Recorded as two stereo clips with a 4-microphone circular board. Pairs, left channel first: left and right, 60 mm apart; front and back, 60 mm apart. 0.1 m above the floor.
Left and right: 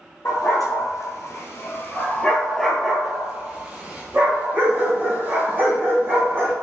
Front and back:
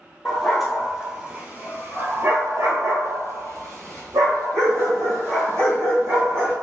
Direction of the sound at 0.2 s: 85° left.